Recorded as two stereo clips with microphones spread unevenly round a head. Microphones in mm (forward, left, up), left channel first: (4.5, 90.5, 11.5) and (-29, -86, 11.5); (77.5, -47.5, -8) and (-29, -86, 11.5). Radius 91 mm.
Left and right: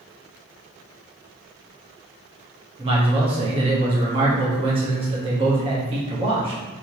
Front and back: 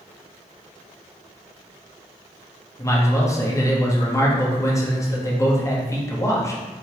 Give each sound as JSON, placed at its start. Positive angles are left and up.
{"t": 2.8, "sound": "a man speaking", "azimuth_deg": -40, "distance_m": 1.1}